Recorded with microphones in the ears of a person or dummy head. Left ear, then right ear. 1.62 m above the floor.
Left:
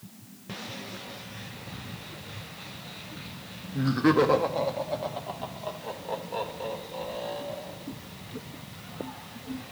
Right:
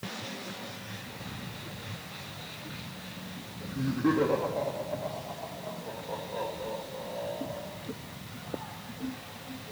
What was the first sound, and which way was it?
Laughter, 55° left (ahead or behind).